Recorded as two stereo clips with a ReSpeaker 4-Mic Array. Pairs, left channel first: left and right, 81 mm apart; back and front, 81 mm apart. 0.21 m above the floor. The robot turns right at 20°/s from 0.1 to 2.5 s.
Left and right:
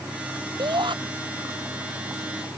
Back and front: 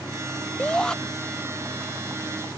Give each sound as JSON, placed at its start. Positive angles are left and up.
{"t": 0.6, "sound": "a shout", "azimuth_deg": -105}